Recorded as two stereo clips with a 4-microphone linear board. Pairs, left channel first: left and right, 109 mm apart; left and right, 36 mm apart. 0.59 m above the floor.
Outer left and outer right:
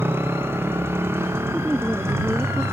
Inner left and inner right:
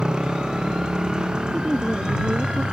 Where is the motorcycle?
20° right (ahead or behind); by 2.7 s 25° right (ahead or behind).